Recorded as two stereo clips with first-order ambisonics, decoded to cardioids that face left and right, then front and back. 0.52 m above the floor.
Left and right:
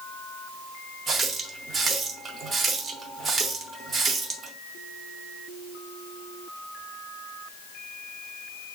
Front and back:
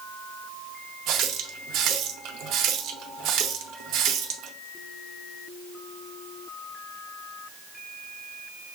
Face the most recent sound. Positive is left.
turn(degrees=-155)